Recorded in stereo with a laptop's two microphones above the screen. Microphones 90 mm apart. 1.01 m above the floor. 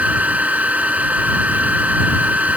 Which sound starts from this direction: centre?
A fan, at 0.0 s.